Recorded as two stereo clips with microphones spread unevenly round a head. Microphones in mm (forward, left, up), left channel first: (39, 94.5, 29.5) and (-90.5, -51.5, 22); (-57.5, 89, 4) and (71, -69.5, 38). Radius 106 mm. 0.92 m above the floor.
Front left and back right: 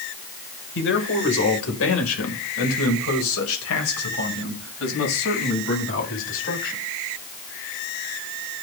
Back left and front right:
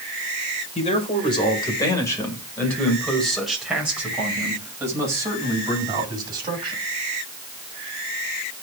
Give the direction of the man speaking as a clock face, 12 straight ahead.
10 o'clock.